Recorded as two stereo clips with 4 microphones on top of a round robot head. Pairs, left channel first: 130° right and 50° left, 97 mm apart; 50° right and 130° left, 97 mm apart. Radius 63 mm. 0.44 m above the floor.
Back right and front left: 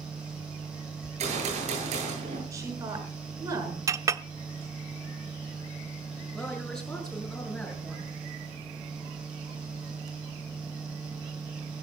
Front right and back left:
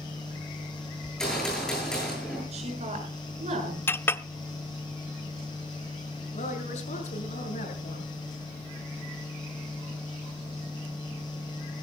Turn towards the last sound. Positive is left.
turn(degrees=-50)